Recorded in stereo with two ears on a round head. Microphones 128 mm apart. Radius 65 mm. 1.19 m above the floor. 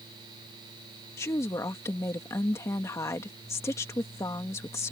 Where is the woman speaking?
20° left (ahead or behind).